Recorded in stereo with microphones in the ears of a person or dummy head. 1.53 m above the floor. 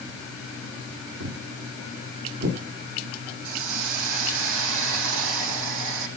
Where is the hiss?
75° right (ahead or behind), 9 m.